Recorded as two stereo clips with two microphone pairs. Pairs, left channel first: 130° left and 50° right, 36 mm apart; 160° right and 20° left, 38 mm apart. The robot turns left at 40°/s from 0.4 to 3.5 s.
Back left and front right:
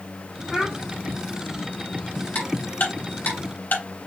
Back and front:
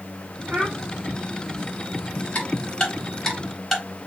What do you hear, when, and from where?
0.5 s a child speaking: 65° left, 2 m; by 0.8 s 55° left, 2 m
2.4 s ticking: 160° left, 3 m; by 3.8 s 115° left, 3 m